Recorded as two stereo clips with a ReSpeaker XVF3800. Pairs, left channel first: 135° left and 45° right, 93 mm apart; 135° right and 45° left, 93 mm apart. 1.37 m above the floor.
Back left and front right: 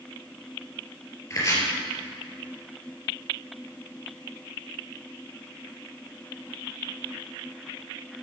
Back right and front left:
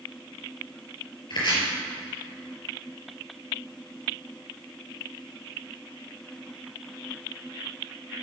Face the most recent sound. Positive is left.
turn(degrees=-170)